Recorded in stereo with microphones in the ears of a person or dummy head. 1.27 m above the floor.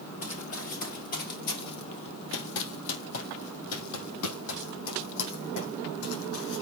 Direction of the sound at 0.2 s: 25° left (ahead or behind).